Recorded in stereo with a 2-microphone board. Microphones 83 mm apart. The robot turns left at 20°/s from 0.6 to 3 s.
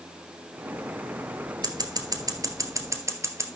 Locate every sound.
1.6 s scissors: 55° right (ahead or behind), 1.3 m; by 3.5 s 35° right (ahead or behind), 1.3 m